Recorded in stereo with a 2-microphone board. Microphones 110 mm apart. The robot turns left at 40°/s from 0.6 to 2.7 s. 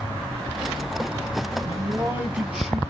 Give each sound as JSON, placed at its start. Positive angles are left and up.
{"t": 1.6, "sound": "a man speaking", "azimuth_deg": -135, "distance_m": 1.1}